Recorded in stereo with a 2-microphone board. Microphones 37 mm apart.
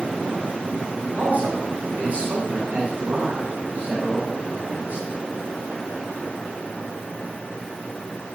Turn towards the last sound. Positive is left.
turn(degrees=-50)  # may be behind; listen again after turning